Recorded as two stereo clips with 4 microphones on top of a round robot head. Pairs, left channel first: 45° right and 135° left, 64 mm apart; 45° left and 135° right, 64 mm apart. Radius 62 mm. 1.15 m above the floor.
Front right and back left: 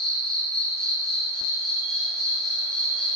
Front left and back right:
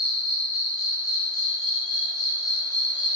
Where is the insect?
30° left, 1.9 m.